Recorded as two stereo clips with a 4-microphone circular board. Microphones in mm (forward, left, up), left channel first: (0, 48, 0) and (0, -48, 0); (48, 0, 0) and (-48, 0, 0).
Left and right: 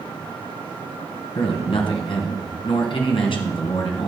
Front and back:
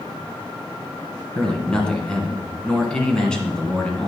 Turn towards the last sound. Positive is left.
turn(degrees=80)